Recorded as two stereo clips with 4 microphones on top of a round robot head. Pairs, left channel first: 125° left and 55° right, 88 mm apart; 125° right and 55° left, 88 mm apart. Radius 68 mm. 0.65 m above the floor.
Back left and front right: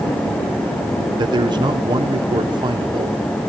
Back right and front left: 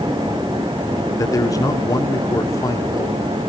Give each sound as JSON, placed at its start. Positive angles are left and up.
{"t": 1.2, "sound": "a man speaking", "azimuth_deg": -80, "distance_m": 1.9}